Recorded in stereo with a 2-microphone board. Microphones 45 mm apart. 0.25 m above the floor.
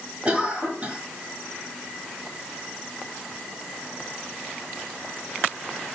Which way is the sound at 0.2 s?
30° right (ahead or behind).